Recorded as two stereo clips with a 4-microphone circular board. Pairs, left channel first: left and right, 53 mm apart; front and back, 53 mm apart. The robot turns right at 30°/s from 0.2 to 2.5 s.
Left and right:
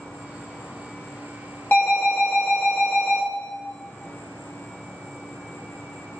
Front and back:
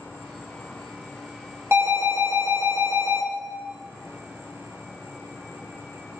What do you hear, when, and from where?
0.0 s an insect: 20° left, 1.2 m; by 6.2 s 85° left, 1.2 m
1.7 s an alarm: 140° left, 0.9 m; by 3.2 s 160° left, 0.9 m